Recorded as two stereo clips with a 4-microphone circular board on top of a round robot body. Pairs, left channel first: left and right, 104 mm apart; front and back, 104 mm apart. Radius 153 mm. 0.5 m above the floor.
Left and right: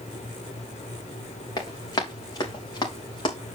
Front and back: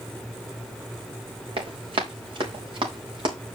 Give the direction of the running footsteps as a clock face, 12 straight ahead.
7 o'clock.